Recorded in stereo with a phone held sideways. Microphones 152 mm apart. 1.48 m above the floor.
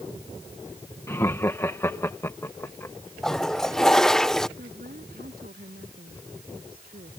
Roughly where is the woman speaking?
Right.